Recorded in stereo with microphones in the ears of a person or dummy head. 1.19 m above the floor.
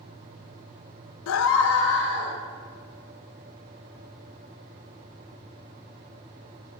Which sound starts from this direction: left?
A scream, at 1.3 s.